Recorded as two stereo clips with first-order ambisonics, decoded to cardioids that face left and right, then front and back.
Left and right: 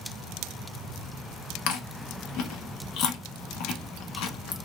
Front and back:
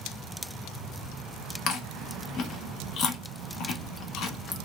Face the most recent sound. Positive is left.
turn(degrees=55)